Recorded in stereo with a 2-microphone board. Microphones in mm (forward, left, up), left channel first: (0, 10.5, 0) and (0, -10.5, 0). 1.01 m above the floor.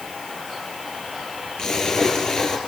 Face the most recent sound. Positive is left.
turn(degrees=30)  # may be behind; listen again after turning